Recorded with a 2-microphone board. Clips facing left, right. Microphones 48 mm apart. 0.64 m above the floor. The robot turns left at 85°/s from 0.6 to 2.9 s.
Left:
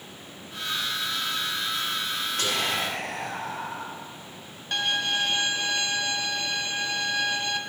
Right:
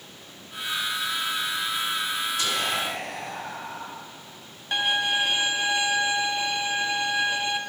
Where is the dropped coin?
I don't hear a dropped coin.